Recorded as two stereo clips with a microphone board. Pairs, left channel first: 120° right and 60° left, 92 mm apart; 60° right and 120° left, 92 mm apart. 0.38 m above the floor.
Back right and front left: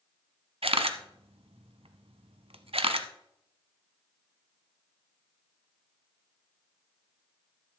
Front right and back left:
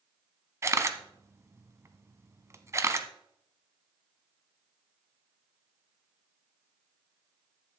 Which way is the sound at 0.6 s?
60° left.